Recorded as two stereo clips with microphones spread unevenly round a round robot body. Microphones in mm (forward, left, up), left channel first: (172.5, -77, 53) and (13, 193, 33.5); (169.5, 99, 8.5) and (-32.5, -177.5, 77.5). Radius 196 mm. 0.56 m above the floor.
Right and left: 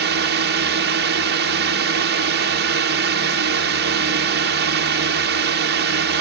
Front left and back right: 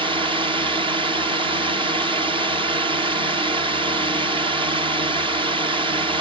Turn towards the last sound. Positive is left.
turn(degrees=150)